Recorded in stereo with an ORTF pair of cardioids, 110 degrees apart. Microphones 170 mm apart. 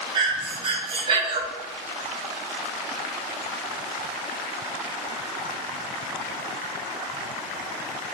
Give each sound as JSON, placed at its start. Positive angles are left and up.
{"t": 0.1, "sound": "breathing", "azimuth_deg": -35, "distance_m": 0.6}